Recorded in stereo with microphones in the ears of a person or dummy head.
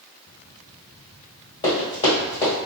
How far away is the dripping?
No dripping in this recording.